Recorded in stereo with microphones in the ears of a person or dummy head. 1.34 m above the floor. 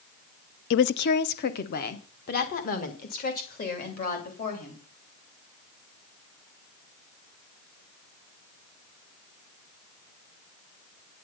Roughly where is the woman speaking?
Left.